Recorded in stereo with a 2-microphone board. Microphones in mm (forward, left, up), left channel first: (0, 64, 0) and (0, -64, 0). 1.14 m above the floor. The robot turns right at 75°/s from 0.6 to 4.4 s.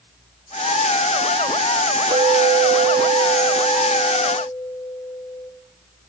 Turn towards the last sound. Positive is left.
turn(degrees=35)